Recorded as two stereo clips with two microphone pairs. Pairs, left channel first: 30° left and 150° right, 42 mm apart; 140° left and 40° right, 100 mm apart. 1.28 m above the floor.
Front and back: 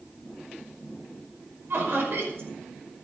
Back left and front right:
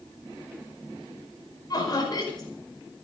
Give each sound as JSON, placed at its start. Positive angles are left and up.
{"t": 1.7, "sound": "laughter", "azimuth_deg": -175, "distance_m": 5.0}